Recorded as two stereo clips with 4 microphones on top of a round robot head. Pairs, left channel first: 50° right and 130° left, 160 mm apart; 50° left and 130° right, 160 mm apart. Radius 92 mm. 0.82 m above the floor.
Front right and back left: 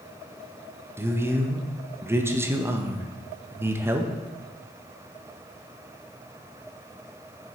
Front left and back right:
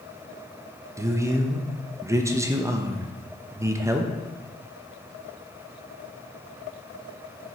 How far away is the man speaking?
About 0.8 m.